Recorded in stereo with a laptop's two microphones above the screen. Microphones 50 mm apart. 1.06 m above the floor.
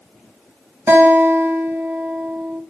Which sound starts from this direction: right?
A guitar, at 0.9 s.